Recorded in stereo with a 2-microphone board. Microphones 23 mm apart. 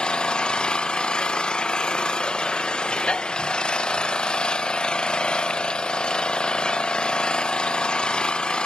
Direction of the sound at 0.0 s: 40° left (ahead or behind).